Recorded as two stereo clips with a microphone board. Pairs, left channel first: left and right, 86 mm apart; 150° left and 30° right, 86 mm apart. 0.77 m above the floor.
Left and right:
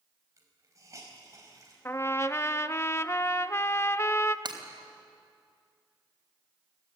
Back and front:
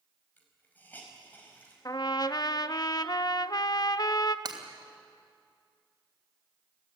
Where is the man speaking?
No man speaking in this recording.